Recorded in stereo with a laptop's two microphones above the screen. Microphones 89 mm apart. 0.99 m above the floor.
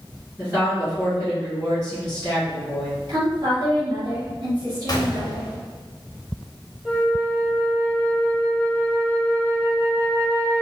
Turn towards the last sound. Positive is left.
turn(degrees=-15)  # may be behind; listen again after turning